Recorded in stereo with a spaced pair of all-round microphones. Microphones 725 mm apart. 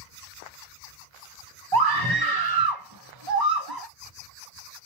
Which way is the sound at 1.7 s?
35° right (ahead or behind).